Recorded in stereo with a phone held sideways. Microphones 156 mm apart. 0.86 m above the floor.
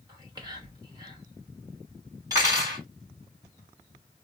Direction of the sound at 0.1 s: 25° right (ahead or behind).